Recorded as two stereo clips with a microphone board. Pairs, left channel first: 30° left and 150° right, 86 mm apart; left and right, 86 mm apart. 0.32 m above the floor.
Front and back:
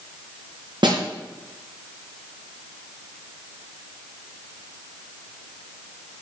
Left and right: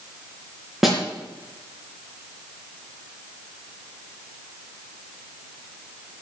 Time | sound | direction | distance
0.8 | a snare drum | straight behind | 3.5 m